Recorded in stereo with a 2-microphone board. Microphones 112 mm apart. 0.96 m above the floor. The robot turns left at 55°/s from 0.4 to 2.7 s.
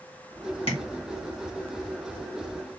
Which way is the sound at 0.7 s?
60° left (ahead or behind).